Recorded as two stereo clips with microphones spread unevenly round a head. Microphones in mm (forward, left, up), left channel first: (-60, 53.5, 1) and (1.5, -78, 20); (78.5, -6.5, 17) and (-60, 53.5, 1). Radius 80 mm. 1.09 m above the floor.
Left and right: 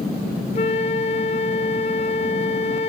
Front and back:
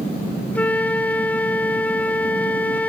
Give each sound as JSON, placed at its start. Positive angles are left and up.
{"t": 0.6, "sound": "a flute", "azimuth_deg": 60}